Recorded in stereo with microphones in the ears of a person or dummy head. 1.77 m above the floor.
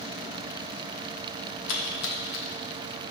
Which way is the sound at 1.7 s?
65° left (ahead or behind).